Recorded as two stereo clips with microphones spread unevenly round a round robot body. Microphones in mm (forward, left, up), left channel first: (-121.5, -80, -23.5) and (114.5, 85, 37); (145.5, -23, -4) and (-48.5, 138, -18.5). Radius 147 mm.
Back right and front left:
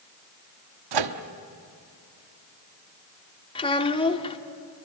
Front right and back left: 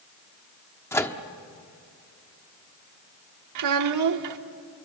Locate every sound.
0.9 s a microwave: 40° left, 1.3 m
3.5 s a child speaking: 145° left, 1.4 m